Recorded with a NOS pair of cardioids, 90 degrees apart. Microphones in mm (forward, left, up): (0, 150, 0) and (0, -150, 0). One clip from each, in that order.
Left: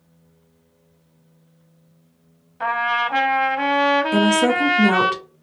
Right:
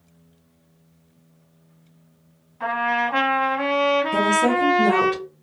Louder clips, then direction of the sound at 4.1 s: Left 1 dB; 65° left.